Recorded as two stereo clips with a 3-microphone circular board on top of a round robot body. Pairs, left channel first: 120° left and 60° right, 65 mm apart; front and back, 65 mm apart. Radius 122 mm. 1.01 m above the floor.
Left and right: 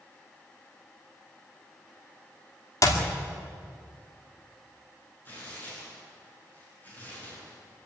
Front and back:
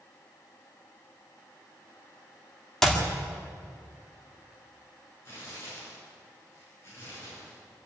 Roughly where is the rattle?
I don't hear a rattle.